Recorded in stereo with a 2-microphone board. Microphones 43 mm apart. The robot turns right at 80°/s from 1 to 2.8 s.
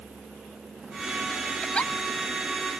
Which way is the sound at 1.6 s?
15° left (ahead or behind).